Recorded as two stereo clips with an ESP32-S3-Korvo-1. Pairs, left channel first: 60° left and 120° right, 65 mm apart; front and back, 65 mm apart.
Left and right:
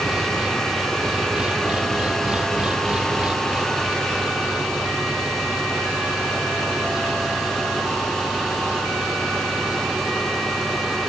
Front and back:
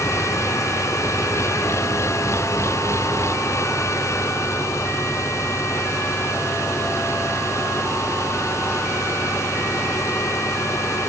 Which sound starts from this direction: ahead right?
An engine running, at 0.0 s.